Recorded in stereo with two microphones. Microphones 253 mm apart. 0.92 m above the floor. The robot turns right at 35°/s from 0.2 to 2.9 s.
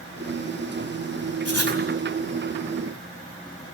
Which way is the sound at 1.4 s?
70° left (ahead or behind).